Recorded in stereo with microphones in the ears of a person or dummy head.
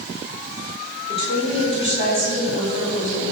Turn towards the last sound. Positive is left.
turn(degrees=50)  # may be behind; listen again after turning